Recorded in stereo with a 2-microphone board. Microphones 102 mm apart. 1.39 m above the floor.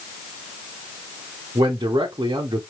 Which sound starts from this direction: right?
A man speaking, at 1.6 s.